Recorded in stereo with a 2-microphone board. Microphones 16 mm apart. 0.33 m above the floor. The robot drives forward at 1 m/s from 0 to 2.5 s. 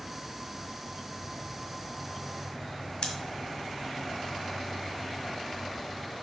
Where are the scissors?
50° left (ahead or behind), 1.6 m.